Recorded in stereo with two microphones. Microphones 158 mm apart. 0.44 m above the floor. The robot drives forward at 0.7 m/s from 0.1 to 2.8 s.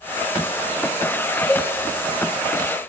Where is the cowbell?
10° left (ahead or behind), 0.6 m.